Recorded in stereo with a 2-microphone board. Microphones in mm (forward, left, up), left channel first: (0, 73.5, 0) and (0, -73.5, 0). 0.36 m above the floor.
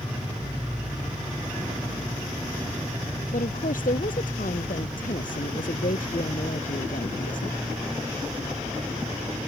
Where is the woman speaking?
70° left (ahead or behind).